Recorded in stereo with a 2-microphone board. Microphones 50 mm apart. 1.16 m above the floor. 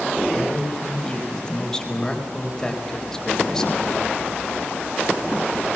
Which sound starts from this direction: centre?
A man speaking, at 0.3 s.